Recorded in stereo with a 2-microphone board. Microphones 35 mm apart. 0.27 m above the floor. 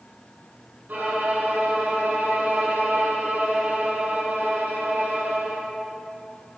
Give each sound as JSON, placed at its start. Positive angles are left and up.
{"t": 0.9, "sound": "a violin", "side_deg": -75, "distance_m": 2.5}